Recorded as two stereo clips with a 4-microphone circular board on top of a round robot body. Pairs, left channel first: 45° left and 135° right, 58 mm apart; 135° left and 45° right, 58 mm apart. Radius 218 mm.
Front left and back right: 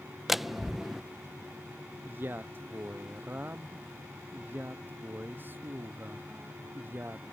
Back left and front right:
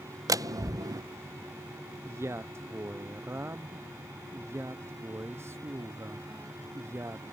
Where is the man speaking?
80° right.